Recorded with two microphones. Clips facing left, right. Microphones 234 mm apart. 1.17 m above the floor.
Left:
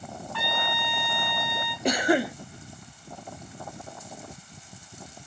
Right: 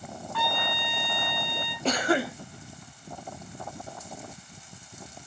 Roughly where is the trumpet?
Centre.